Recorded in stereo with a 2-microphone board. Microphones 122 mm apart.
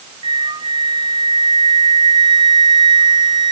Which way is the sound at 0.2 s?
40° right (ahead or behind).